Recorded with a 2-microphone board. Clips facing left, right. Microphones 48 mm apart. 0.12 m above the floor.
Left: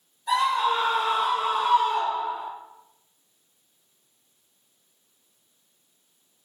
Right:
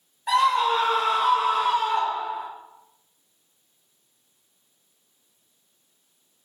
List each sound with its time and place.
0.3 s a scream: 65° right (ahead or behind), 3 m; by 2.5 s 50° right (ahead or behind), 2 m